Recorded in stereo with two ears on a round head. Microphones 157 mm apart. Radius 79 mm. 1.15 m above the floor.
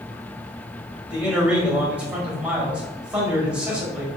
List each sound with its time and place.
1.1 s a man speaking: 5° right (ahead or behind), 1.6 m